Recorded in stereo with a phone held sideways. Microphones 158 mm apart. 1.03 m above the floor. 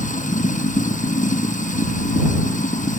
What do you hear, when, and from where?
0.0 s running water: 55° left (ahead or behind)